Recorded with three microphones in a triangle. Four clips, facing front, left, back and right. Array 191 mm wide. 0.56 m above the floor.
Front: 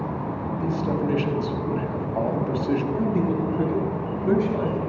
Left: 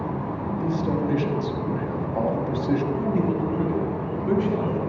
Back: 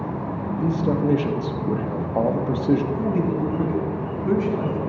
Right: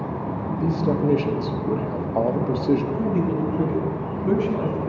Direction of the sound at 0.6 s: 135° right.